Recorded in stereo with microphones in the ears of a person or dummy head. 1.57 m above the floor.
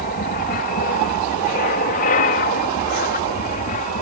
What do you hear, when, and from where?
0.0 s an aircraft: 50° left (ahead or behind)